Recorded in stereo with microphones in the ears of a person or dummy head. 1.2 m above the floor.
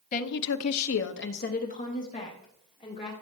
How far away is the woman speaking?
About 0.9 m.